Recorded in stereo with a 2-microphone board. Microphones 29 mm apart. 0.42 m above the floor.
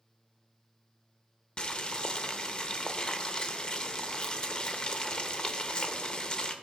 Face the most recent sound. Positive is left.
turn(degrees=35)  # may be behind; listen again after turning